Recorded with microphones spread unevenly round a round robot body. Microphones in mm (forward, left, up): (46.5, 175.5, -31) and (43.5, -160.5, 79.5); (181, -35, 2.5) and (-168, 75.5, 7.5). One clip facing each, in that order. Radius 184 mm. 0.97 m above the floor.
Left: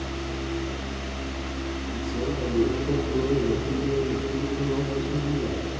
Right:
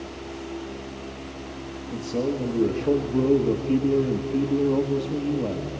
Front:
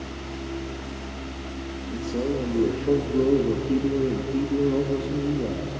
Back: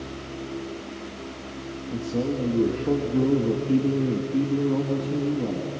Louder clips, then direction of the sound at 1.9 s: Right 5 dB, even; 120° right.